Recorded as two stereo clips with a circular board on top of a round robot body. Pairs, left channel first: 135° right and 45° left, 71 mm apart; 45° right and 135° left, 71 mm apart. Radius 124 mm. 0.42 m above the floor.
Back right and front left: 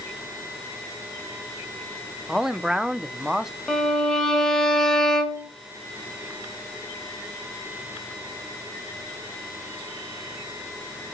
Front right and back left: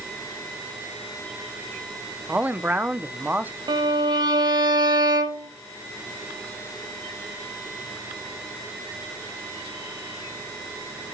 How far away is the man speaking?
About 1.5 m.